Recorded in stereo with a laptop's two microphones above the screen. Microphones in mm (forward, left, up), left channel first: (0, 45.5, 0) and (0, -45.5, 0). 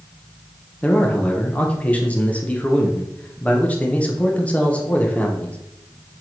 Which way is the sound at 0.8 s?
15° left (ahead or behind).